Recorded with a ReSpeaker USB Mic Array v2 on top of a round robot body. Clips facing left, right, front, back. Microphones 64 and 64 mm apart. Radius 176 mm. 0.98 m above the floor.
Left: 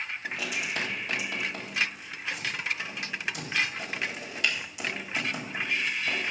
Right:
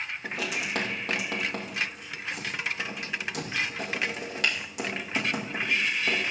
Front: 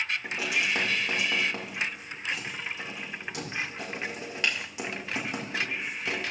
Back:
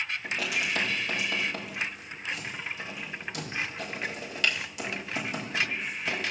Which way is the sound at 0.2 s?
65° right.